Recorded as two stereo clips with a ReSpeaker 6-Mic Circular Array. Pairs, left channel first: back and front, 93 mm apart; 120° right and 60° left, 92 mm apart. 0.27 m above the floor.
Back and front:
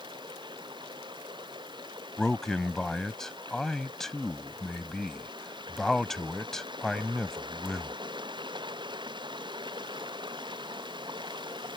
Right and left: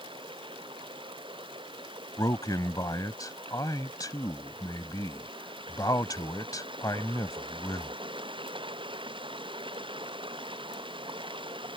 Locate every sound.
0.0 s running water: 35° left
2.2 s a man speaking: 95° right